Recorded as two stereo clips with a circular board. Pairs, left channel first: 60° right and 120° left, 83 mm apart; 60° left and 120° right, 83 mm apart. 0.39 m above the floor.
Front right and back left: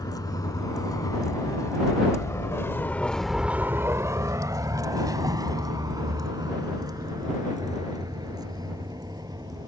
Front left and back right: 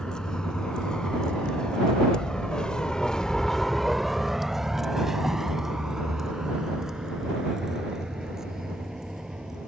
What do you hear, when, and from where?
0.0 s a vehicle: 20° right; by 9.7 s 155° left